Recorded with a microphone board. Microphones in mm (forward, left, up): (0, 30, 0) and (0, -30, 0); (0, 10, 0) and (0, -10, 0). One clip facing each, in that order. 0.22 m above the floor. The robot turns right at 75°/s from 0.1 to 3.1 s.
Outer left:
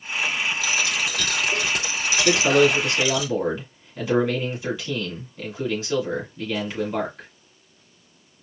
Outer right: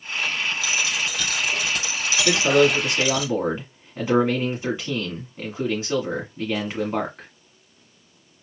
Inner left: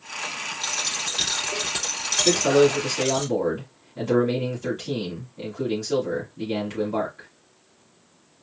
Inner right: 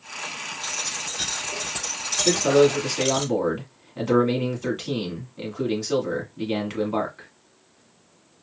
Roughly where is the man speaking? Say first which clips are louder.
Even, inner right 1 dB; behind left.